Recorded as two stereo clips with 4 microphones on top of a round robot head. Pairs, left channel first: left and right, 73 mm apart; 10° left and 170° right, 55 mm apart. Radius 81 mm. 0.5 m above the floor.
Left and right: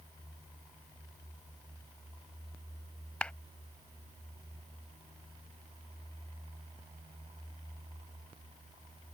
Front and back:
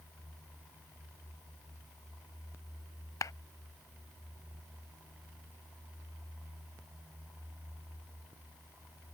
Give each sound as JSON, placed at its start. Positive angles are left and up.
{"t": 3.2, "sound": "a clap", "azimuth_deg": 15}